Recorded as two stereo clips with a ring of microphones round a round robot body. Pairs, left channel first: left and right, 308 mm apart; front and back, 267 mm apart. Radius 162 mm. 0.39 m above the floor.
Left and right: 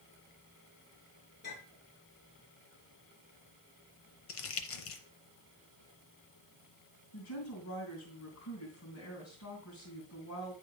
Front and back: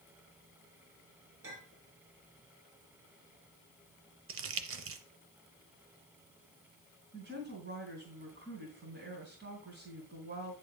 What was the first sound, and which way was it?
A clink, 145° left.